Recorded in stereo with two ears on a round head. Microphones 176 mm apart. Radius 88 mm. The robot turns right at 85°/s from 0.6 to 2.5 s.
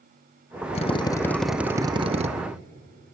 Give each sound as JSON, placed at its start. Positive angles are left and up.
{"t": 0.8, "sound": "a drill", "azimuth_deg": 120, "distance_m": 0.9}